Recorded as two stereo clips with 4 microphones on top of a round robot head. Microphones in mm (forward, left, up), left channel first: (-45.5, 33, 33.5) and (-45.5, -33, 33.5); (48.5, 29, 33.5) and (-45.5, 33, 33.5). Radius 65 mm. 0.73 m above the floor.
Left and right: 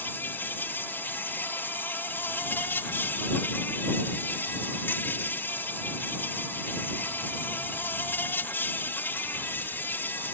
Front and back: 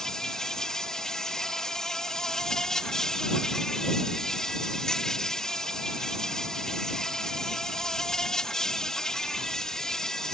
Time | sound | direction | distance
0.0 | an insect | 75° left | ?